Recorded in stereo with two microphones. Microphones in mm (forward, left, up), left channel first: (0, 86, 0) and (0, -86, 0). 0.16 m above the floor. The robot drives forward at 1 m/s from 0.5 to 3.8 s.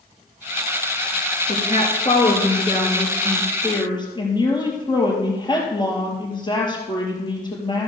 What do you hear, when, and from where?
1.5 s a woman speaking: 45° left (ahead or behind), 2.5 m; by 7.9 s 25° left (ahead or behind), 4 m